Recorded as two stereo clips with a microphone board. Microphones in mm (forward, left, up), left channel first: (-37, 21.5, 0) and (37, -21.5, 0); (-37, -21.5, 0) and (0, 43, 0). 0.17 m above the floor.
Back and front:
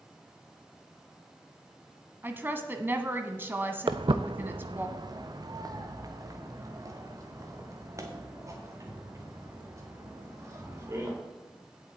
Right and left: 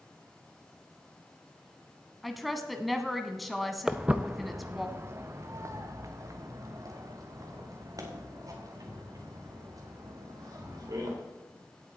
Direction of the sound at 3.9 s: 20° right.